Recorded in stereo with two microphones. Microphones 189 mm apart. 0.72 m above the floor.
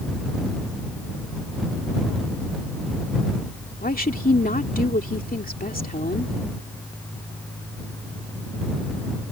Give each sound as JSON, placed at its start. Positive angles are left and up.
{"t": 3.8, "sound": "a woman speaking", "side_deg": 50}